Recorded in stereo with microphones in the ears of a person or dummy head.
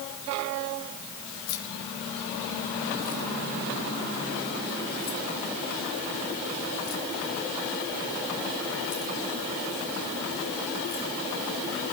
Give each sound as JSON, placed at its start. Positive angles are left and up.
{"t": 1.5, "sound": "keys jangling", "side_deg": 80, "distance_m": 6.5}